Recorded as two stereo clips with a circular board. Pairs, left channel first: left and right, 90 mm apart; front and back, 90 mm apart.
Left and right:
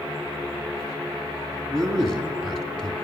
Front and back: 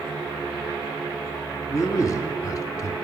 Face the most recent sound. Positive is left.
turn(degrees=10)